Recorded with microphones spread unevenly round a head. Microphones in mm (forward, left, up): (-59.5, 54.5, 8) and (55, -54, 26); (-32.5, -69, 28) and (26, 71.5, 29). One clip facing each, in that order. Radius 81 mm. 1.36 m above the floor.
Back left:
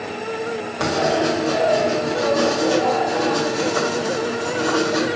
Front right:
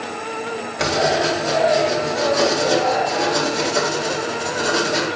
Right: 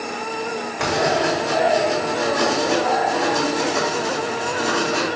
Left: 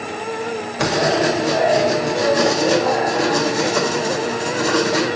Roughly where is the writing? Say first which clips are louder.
Even, left 2 dB; ahead.